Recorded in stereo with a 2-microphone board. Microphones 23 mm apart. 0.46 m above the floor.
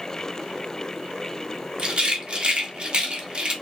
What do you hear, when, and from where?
1.8 s a rattle: 40° right (ahead or behind), 0.7 m